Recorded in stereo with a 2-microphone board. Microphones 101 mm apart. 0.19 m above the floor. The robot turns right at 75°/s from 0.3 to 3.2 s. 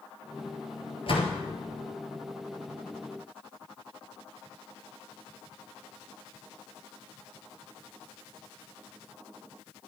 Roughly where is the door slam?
Left.